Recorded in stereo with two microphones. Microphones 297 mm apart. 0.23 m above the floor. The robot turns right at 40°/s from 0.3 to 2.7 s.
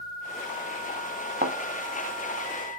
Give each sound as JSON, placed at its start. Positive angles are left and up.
{"t": 1.4, "sound": "a thud", "side_deg": -35, "distance_m": 0.7}